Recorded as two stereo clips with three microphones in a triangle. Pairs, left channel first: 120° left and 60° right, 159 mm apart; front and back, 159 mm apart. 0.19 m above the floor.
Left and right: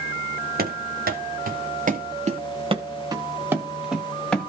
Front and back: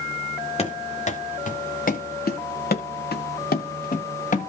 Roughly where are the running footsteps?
Ahead right.